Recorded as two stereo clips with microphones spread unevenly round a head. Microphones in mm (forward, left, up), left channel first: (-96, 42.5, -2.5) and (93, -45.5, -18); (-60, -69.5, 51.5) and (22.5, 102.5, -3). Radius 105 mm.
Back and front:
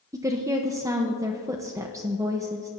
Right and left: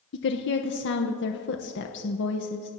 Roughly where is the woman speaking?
Right.